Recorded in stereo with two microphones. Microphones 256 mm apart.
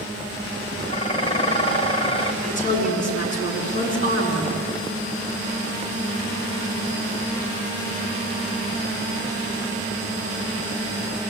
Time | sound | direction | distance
0.9 | dishes clattering | 20° left (ahead or behind) | 2.5 m
2.4 | a woman speaking | 30° left (ahead or behind) | 7.5 m